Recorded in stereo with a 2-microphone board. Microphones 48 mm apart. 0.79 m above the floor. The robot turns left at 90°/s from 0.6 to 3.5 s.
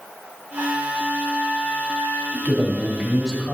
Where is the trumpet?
115° right, 1.9 m; by 2.2 s 95° left, 1.9 m.